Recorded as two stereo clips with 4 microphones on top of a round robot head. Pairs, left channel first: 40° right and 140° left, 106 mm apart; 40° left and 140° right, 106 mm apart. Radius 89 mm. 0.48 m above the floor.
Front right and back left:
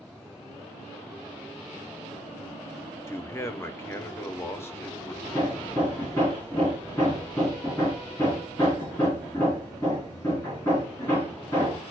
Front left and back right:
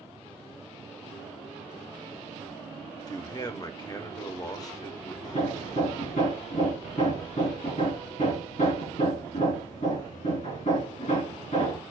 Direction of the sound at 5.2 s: 35° left.